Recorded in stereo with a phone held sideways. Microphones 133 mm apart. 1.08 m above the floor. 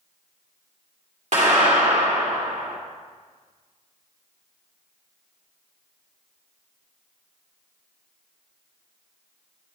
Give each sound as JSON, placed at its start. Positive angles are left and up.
{"t": 1.3, "sound": "a clap", "side_deg": -60, "distance_m": 2.0}